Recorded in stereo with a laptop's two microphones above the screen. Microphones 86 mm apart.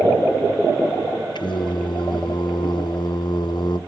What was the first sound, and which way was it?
Singing, 60° left (ahead or behind).